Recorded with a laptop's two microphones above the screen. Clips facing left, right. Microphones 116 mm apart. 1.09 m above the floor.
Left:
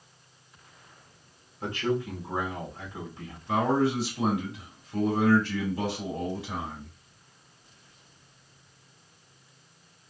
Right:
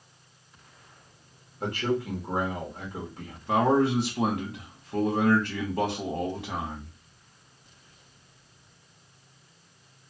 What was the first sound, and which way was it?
A man speaking, 65° right (ahead or behind).